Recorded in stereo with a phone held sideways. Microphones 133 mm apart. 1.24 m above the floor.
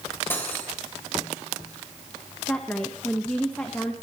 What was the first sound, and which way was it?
Cutlery clinking, 15° left (ahead or behind).